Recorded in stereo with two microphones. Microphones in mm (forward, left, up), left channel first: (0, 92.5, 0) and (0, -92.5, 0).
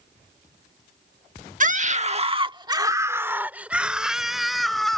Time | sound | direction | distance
1.6 | a scream | 45° right (ahead or behind) | ?